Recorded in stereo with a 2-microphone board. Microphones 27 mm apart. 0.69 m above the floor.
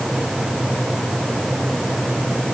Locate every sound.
Only background noise.